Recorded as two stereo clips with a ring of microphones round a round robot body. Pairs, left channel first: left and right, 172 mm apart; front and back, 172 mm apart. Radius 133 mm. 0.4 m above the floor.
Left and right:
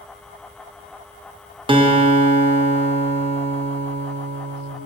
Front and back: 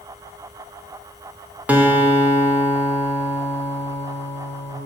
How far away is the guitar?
About 0.5 m.